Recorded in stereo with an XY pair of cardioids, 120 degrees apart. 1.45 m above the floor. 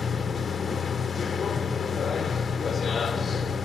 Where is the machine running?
30° left, 1.0 m.